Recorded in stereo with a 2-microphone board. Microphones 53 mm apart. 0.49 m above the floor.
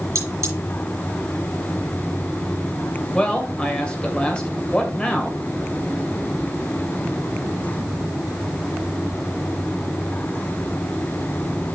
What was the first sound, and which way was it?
Cutlery clinking, 65° right (ahead or behind).